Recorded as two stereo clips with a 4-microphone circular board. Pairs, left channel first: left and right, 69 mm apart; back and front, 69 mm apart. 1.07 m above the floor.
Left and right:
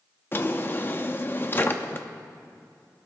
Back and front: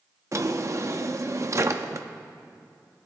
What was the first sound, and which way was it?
A drawer, 35° left.